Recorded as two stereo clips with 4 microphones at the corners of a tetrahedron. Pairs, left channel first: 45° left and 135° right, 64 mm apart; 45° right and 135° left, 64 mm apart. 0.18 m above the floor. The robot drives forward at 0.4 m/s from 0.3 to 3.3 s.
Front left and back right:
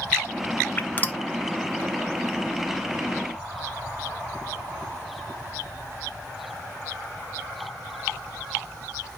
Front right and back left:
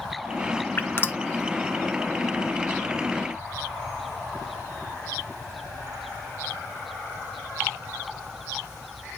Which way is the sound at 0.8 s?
5° right.